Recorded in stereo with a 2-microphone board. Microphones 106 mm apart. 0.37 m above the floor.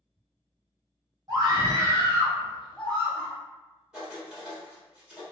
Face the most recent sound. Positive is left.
turn(degrees=-10)  # may be behind; listen again after turning